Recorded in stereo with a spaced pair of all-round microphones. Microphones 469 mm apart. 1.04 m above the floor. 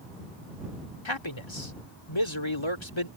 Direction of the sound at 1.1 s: 75° left (ahead or behind).